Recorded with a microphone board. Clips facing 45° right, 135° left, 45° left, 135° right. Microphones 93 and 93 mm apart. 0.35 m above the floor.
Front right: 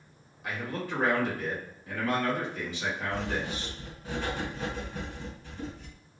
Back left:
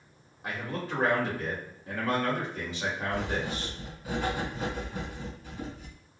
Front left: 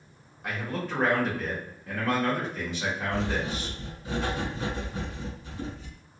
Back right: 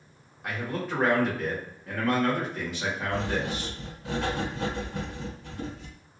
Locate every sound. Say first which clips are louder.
0.4 s a man speaking: even, back right 1 dB; 140° left, 1.1 m
3.1 s writing: back left 1 dB, even; 145° right, 1.7 m